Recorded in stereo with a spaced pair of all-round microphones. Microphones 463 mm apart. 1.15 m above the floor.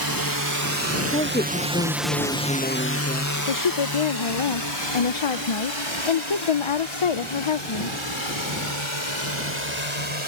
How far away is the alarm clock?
I don't hear an alarm clock.